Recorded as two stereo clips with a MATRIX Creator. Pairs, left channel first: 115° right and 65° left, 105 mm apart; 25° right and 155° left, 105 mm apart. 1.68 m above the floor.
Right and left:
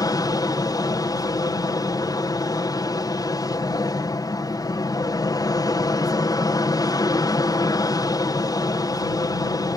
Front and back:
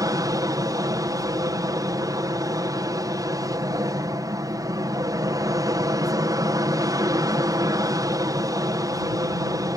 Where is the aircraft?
155° right.